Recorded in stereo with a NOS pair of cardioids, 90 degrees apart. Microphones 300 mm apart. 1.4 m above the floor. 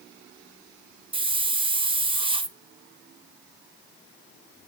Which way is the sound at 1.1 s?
15° right.